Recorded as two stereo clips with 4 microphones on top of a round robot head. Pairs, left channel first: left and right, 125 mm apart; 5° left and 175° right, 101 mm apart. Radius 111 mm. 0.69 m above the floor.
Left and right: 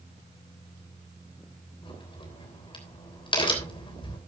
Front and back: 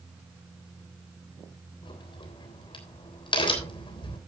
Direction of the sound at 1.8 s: 40° left.